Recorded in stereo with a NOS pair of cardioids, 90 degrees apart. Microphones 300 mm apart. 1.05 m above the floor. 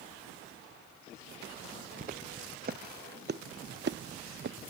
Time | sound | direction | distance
2.0 | footsteps | 30° right | ?